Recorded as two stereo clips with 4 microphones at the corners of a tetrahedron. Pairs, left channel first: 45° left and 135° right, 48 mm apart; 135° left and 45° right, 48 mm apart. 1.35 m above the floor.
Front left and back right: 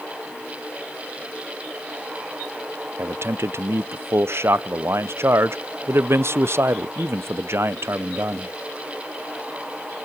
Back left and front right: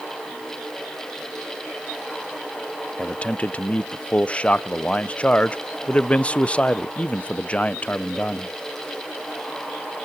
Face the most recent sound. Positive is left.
turn(degrees=-160)